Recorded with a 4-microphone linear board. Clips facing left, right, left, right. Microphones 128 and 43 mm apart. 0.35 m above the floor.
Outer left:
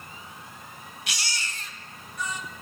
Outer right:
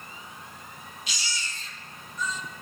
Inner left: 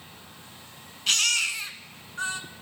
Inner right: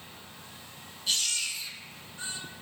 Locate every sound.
1.1 s a baby crying: 80° left, 1.1 m